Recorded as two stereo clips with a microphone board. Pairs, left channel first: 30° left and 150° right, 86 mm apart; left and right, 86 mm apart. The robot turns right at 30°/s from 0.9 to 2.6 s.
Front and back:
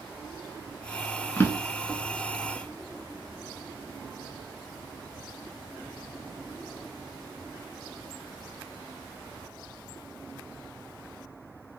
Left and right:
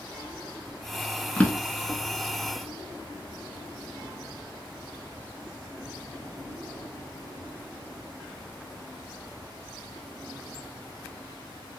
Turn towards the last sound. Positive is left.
turn(degrees=80)